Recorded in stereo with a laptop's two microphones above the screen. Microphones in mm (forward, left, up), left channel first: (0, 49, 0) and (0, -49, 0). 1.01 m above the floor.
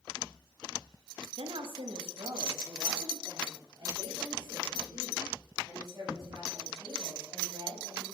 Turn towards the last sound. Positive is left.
turn(degrees=-35)  # may be behind; listen again after turning